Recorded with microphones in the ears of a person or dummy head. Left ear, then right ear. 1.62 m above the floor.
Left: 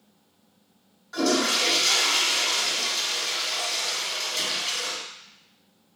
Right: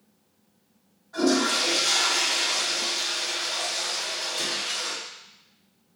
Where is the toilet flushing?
50° left (ahead or behind), 1.5 m.